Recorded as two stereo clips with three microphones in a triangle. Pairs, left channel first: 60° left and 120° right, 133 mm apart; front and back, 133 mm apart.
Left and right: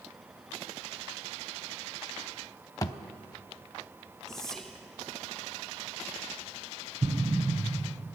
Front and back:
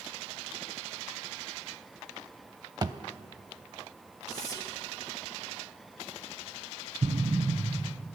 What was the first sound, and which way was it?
A thud, 120° left.